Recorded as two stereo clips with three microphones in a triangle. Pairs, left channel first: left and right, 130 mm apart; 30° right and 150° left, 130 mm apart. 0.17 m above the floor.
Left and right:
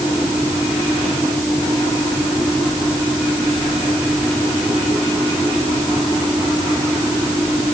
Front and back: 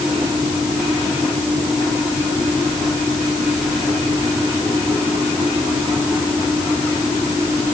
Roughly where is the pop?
No pop in this recording.